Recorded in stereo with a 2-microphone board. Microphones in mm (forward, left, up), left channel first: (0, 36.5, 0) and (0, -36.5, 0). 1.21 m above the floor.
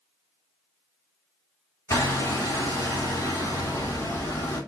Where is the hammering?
45° left (ahead or behind), 3 m.